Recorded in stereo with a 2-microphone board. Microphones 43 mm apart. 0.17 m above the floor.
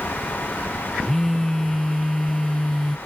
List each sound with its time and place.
1.0 s a phone buzzing: 5° left (ahead or behind)